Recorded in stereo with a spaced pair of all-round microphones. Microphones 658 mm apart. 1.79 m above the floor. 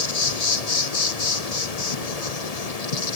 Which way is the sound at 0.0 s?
65° left (ahead or behind).